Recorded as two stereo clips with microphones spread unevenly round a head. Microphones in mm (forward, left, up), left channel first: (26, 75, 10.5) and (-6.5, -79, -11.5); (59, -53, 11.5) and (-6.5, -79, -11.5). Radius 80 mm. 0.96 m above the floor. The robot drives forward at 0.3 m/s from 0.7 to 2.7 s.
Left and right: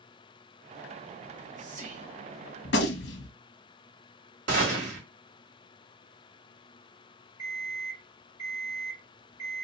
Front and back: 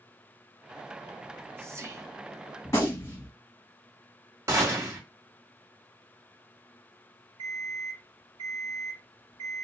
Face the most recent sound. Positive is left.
turn(degrees=-170)